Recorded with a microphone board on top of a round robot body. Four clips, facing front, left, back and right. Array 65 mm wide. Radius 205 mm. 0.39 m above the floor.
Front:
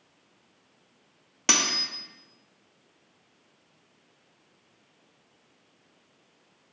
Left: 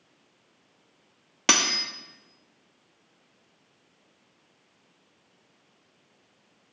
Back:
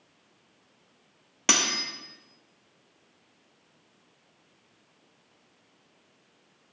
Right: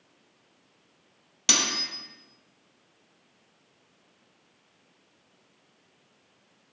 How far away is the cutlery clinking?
About 0.5 m.